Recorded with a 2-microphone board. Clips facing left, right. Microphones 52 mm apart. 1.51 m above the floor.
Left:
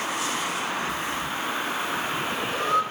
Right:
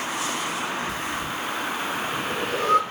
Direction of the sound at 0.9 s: 70° right (ahead or behind).